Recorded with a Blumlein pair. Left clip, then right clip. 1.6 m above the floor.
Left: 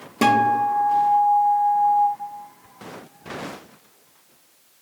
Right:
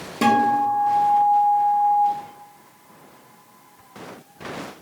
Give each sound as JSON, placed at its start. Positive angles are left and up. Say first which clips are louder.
{"t": 0.2, "sound": "a guitar", "louder": "even", "azimuth_deg": 10, "distance_m": 0.5}